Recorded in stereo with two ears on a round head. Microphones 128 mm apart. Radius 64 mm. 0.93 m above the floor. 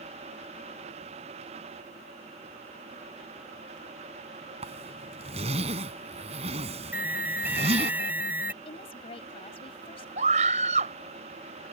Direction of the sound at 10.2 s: 50° right (ahead or behind).